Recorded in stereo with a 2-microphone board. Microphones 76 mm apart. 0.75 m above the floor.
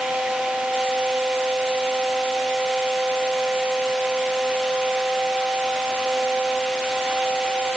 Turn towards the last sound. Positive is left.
No sound to turn to.